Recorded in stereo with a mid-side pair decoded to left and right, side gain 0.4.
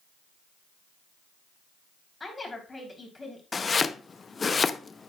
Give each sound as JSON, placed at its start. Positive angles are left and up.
{"t": 2.2, "sound": "a woman speaking", "azimuth_deg": 25, "distance_m": 3.0}
{"t": 3.5, "sound": "chopping", "azimuth_deg": 35, "distance_m": 0.5}